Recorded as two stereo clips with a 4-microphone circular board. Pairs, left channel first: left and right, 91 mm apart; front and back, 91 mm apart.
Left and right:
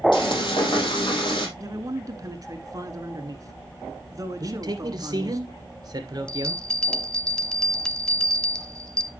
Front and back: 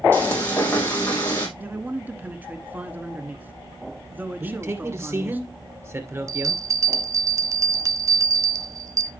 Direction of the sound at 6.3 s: 165° left.